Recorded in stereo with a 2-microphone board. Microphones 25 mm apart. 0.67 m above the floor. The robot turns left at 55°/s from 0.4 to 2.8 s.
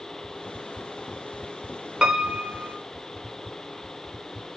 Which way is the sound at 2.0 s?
40° right.